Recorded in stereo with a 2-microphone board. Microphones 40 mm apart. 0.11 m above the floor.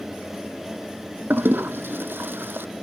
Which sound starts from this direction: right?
A toilet flushing, at 1.3 s.